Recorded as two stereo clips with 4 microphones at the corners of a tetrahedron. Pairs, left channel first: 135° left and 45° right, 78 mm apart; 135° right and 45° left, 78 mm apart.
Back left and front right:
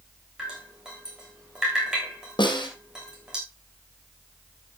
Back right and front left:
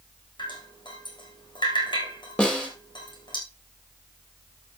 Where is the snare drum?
150° left, 4.5 m.